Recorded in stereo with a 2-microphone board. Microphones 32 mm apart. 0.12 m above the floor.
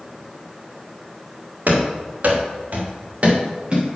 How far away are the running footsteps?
About 4 m.